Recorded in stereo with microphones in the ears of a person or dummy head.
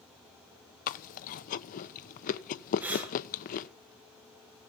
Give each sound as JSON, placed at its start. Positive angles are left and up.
{"t": 0.9, "sound": "chewing", "side_deg": 50, "distance_m": 0.9}
{"t": 2.8, "sound": "breathing", "side_deg": -10, "distance_m": 3.0}